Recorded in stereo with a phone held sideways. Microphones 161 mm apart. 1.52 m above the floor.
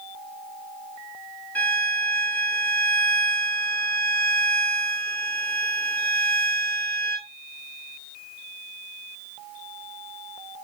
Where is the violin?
10° left (ahead or behind), 1.5 m.